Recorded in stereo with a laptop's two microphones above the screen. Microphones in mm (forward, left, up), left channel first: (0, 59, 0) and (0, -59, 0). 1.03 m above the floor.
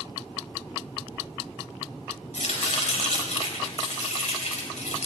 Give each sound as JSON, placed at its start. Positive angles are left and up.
{"t": 2.3, "sound": "chopping", "side_deg": 80, "distance_m": 4.0}